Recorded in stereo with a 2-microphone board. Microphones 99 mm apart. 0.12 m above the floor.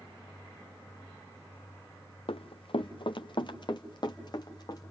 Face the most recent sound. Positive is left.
turn(degrees=45)  # may be behind; listen again after turning